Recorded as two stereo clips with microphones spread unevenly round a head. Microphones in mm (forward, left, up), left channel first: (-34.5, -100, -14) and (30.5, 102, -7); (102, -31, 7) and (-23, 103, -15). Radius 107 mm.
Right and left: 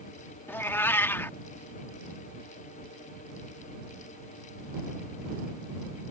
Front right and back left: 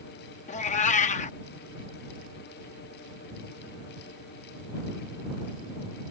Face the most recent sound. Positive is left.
turn(degrees=-30)